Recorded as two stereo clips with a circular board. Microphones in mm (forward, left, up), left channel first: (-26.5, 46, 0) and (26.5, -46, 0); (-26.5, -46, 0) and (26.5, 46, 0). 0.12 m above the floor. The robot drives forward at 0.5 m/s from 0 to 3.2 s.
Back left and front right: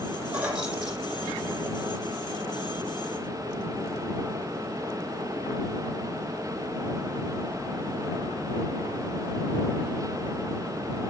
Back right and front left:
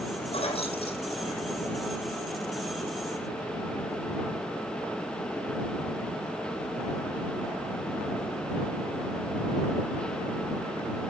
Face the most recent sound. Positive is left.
turn(degrees=-155)